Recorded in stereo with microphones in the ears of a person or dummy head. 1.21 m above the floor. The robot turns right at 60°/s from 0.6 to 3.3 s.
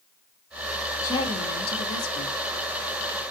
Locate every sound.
1.0 s a woman speaking: 20° left, 2.0 m; by 2.3 s 100° left, 2.0 m